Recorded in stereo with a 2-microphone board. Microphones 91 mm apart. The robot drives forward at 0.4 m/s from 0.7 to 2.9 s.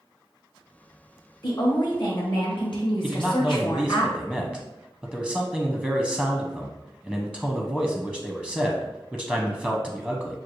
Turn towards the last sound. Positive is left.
turn(degrees=10)  # may be behind; listen again after turning